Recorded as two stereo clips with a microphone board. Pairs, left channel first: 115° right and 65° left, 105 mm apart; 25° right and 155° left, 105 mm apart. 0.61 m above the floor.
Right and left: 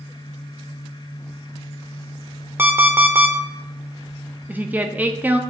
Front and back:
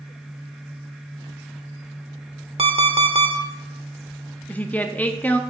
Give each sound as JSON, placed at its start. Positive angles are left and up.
{"t": 2.6, "sound": "an alarm clock", "azimuth_deg": 135, "distance_m": 1.0}
{"t": 4.5, "sound": "a woman speaking", "azimuth_deg": 25, "distance_m": 0.6}